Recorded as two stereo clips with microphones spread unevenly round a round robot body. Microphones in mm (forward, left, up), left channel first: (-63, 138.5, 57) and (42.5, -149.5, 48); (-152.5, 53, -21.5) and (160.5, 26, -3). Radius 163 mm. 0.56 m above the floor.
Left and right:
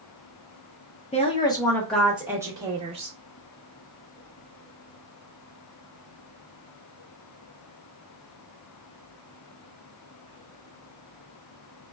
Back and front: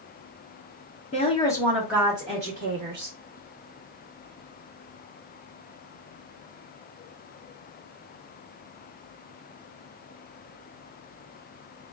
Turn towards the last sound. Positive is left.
turn(degrees=-20)